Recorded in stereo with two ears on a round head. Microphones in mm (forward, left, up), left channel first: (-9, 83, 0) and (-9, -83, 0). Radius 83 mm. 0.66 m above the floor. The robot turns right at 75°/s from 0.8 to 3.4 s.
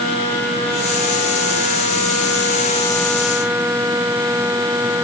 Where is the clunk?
No clunk in this recording.